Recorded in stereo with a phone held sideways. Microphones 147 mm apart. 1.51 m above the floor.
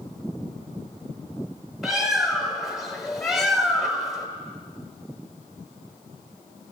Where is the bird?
Centre (ahead or behind), 1.5 m.